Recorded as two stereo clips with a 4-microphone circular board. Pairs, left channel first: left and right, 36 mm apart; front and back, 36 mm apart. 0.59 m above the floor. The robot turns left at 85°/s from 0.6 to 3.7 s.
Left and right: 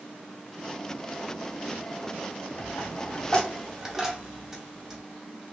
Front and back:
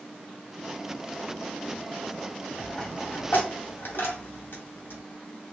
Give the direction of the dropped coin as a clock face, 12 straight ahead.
9 o'clock.